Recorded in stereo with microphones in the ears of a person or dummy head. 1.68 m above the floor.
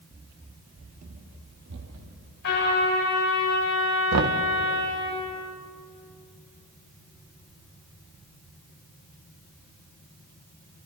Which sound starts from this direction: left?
A trumpet, at 2.4 s.